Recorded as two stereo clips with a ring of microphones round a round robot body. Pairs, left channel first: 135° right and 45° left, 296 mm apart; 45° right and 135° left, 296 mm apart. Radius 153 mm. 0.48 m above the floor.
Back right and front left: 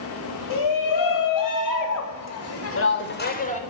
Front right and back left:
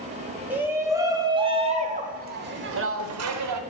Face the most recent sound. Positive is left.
turn(degrees=160)